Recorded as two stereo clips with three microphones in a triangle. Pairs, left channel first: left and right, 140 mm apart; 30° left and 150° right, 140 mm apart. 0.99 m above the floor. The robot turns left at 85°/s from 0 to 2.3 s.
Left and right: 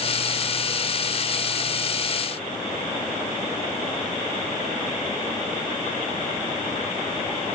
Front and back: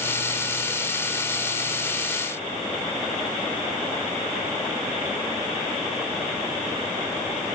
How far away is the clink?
No clink in this recording.